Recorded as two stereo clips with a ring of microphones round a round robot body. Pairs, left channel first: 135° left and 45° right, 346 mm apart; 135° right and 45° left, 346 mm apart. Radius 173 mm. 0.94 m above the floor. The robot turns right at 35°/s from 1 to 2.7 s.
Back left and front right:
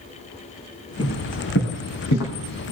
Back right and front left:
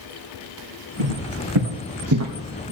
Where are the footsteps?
60° left, 3.5 m; by 2.7 s 105° left, 2 m.